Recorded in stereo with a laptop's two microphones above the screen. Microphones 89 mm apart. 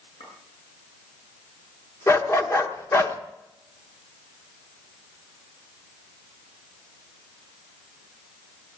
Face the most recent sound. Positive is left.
turn(degrees=30)  # may be behind; listen again after turning